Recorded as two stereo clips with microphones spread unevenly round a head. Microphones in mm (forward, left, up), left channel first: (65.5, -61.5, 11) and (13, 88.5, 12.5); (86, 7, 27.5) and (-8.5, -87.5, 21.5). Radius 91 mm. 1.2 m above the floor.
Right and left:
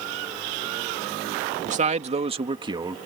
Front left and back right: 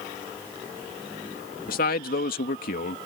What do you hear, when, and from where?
1.7 s a man speaking: 65° left; by 3.0 s 45° left